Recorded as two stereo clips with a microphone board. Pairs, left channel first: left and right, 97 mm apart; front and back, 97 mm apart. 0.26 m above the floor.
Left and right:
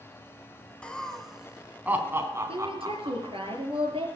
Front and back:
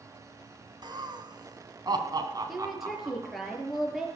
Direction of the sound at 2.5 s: 90° right.